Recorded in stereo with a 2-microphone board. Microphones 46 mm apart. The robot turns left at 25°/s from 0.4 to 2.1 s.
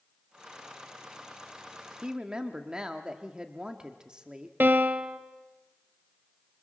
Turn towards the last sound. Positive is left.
turn(degrees=-45)  # may be behind; listen again after turning